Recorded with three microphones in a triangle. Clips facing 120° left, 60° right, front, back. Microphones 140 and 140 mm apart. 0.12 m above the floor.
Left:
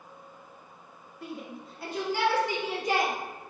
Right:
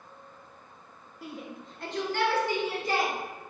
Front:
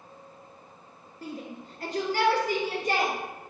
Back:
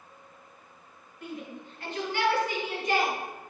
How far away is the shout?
About 1.5 m.